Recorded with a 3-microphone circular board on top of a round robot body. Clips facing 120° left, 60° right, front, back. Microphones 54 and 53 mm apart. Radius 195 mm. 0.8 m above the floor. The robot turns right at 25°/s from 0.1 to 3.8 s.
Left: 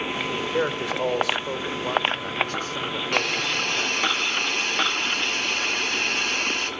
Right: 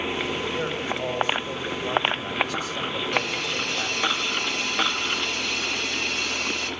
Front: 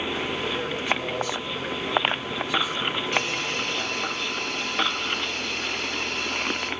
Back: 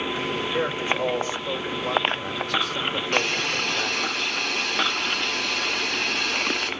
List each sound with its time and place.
0.3 s a man speaking: 105° left, 3.5 m; by 4.1 s 170° right, 3.5 m
3.1 s a hiss: 145° left, 1.7 m; by 6.7 s 160° left, 1.7 m